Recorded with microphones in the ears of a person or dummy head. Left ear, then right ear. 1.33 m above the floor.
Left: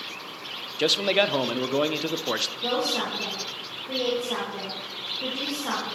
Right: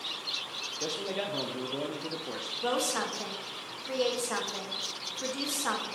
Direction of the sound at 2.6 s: 45° right (ahead or behind).